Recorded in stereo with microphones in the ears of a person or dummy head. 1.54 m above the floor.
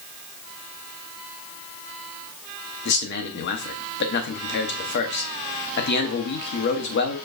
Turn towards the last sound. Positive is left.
turn(degrees=60)  # may be behind; listen again after turning